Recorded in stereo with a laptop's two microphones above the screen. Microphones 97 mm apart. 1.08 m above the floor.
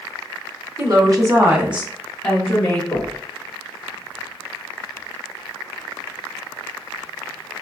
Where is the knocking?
25° left (ahead or behind), 0.9 m.